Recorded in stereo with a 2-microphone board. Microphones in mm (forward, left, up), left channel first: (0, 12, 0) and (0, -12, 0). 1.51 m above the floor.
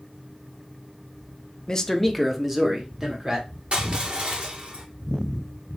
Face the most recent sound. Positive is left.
turn(degrees=-50)  # may be behind; listen again after turning